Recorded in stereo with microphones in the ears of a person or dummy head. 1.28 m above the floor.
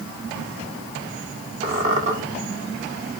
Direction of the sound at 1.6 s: 40° right (ahead or behind).